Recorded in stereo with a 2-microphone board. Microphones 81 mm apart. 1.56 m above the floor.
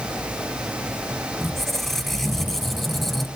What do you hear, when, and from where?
1.4 s a squeak: 5° left (ahead or behind), 0.7 m